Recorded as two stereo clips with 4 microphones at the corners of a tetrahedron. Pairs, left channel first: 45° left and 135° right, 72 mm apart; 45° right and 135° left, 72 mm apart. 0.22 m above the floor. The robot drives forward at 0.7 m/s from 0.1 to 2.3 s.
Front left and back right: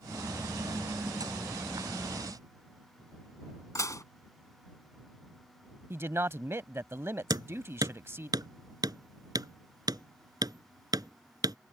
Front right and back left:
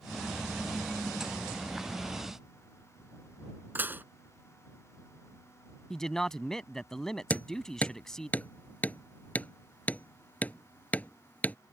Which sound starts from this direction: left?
Dishes clattering, at 3.8 s.